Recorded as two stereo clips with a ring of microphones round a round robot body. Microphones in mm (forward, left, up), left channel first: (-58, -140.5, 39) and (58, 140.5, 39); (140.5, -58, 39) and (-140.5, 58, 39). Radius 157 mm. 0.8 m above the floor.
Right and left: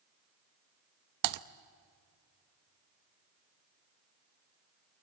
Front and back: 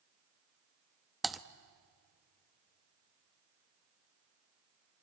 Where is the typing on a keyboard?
70° left, 0.8 m.